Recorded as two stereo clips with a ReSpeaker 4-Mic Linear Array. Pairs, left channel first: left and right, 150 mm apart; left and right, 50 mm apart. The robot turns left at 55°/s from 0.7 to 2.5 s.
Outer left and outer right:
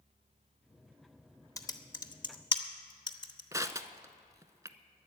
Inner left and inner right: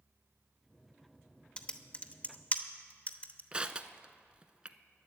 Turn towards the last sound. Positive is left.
turn(degrees=-20)  # may be behind; listen again after turning